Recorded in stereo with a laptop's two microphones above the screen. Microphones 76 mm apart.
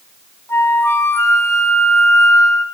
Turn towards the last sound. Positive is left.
turn(degrees=35)  # may be behind; listen again after turning